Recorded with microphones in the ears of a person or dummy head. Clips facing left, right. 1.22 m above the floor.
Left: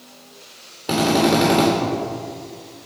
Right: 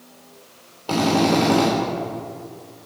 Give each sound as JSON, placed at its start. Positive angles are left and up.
{"t": 0.9, "sound": "a drill", "side_deg": 25, "distance_m": 3.0}